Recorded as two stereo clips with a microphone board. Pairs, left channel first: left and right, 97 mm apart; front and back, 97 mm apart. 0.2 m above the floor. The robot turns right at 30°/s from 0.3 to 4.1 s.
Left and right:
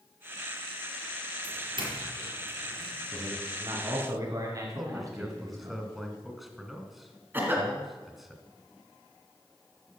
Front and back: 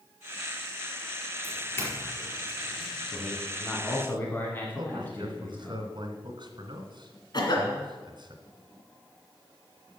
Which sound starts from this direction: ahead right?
A cough, at 7.3 s.